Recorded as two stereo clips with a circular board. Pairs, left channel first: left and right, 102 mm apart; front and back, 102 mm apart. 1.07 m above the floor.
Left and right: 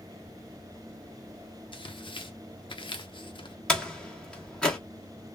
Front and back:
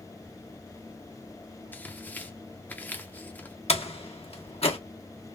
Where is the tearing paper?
70° left, 0.7 m.